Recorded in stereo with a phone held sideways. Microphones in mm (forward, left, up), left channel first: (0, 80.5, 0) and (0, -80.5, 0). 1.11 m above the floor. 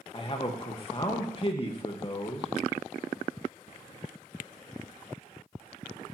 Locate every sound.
0.1 s a man speaking: 35° left (ahead or behind), 1.5 m